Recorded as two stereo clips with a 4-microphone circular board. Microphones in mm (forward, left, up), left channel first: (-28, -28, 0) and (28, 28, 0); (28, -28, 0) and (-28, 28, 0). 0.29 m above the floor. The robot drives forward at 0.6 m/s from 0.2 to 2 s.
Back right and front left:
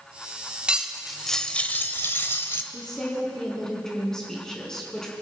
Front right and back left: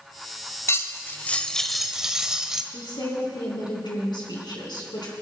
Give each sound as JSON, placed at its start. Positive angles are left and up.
{"t": 0.7, "sound": "cutlery clinking", "azimuth_deg": -25, "distance_m": 0.8}
{"t": 2.7, "sound": "a woman speaking", "azimuth_deg": -55, "distance_m": 3.5}